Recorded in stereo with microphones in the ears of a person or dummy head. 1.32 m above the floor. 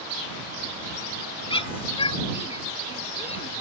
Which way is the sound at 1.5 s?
30° left (ahead or behind).